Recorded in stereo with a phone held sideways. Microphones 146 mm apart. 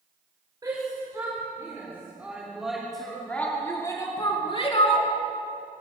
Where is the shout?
25° right (ahead or behind), 4.5 m; by 5.1 s 50° left (ahead or behind), 2.5 m.